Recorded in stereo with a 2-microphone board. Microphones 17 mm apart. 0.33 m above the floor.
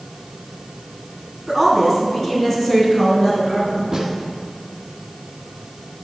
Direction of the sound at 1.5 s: 20° left (ahead or behind).